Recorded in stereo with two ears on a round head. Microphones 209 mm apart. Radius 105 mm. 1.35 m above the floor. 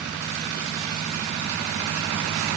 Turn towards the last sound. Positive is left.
No sound to turn to.